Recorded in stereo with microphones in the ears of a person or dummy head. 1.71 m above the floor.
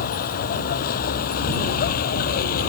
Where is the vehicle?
45° left (ahead or behind).